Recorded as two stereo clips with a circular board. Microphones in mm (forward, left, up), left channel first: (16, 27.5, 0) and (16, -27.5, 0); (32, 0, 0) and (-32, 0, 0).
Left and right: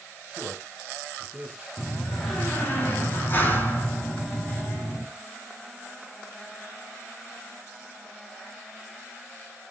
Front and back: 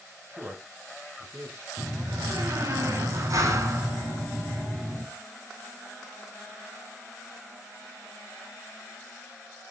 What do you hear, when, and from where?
0.3 s a man speaking: 155° right, 2 m
1.8 s a door slam: 145° left, 5 m